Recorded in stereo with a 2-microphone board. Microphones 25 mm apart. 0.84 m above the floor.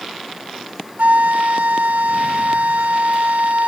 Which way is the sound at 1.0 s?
80° right.